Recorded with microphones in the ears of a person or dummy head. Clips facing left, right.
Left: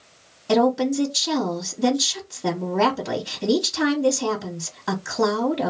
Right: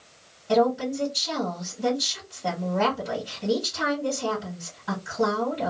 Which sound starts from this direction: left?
A woman speaking, at 0.5 s.